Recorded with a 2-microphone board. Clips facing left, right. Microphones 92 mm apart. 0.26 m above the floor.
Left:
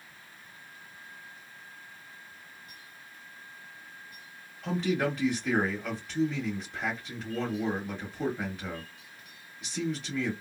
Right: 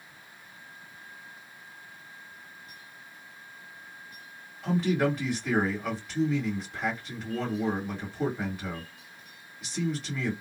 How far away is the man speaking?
About 1.7 m.